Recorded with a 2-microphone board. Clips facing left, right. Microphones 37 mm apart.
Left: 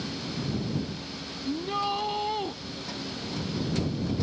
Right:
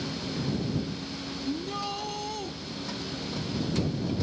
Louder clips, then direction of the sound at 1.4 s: Left 5 dB; 20° left (ahead or behind).